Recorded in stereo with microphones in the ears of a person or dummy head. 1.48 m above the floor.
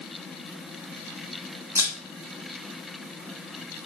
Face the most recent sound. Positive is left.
turn(degrees=-10)  # may be behind; listen again after turning